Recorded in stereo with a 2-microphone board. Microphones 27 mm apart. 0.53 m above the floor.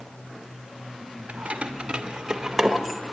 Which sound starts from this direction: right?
Keys jangling, at 1.3 s.